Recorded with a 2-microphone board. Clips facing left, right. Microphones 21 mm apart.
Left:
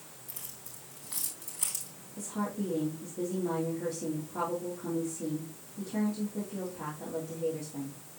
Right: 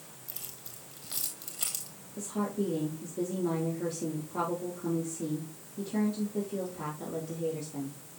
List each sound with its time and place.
0.3 s keys jangling: 65° right (ahead or behind), 2.5 m
2.2 s a woman speaking: 55° right (ahead or behind), 4 m